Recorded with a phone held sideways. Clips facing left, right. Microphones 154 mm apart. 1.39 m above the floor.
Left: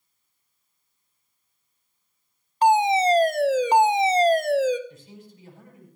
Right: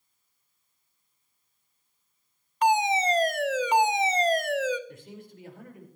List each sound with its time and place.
2.6 s a fire alarm: 30° left (ahead or behind), 1.0 m
4.9 s a man speaking: 65° right (ahead or behind), 5 m